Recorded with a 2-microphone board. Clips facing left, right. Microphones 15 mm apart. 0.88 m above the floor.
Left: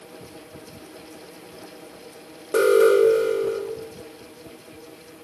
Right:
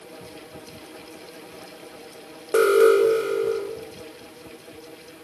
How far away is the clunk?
I don't hear a clunk.